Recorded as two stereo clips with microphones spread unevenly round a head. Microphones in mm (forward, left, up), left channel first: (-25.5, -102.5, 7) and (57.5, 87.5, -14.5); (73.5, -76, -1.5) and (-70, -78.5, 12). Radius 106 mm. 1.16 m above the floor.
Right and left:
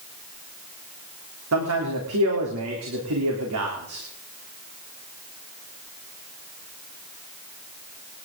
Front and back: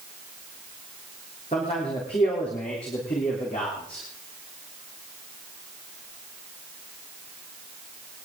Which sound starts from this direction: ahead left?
A man speaking, at 1.5 s.